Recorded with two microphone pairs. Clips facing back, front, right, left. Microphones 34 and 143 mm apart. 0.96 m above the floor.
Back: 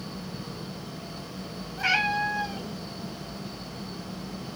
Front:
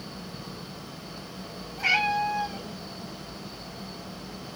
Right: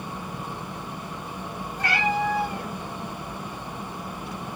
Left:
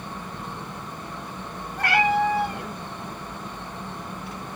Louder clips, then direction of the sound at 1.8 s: Front 1 dB, left 4 dB; 95° left.